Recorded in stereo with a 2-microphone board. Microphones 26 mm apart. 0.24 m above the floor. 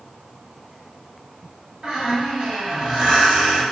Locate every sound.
1.8 s a squeak: 30° right (ahead or behind), 1.3 m